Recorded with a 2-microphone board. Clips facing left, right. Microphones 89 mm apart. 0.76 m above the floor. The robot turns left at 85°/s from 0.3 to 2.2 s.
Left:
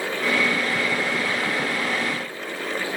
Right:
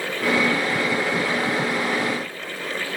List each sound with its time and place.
Only background noise.